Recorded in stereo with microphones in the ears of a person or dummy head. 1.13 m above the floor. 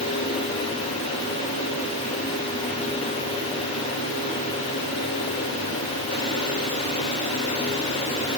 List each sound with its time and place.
Only background noise.